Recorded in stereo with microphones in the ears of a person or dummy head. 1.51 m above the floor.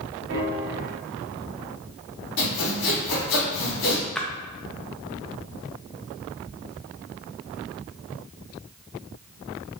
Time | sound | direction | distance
0.3 | a piano | 60° right (ahead or behind) | 0.9 m
2.4 | sawing | 60° left (ahead or behind) | 1.9 m
4.2 | a splash | centre (ahead or behind) | 0.5 m